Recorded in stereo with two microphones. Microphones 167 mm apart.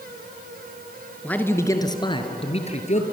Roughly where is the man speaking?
Centre.